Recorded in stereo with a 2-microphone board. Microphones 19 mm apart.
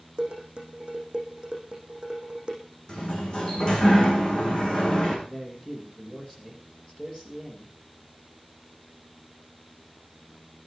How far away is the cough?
No cough in this recording.